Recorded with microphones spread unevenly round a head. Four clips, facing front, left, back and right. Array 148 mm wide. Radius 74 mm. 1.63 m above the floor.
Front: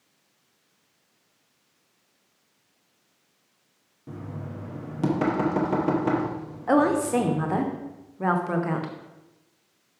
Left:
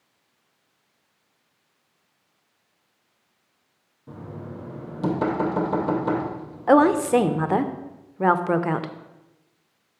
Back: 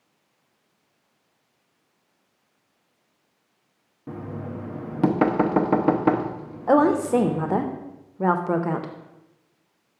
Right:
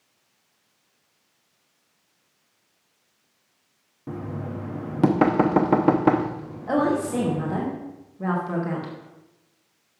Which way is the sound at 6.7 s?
120° left.